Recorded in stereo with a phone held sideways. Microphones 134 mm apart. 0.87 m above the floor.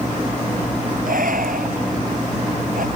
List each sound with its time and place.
1.1 s breathing: 80° right